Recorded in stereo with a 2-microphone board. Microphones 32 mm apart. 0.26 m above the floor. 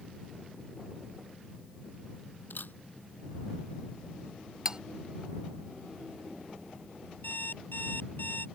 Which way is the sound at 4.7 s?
25° right (ahead or behind).